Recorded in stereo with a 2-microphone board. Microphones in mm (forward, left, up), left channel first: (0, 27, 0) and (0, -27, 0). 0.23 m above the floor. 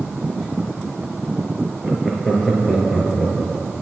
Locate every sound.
1.8 s laughter: 15° right (ahead or behind), 3 m; by 3.8 s centre (ahead or behind), 4 m